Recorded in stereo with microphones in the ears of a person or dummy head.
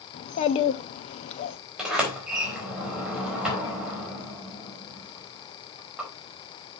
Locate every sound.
0.1 s a child speaking: 40° left (ahead or behind), 0.7 m
1.8 s a sliding door: 5° right (ahead or behind), 3.5 m